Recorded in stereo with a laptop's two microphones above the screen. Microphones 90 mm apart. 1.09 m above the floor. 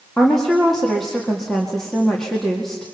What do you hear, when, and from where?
0.2 s a woman speaking: 5° left (ahead or behind), 2 m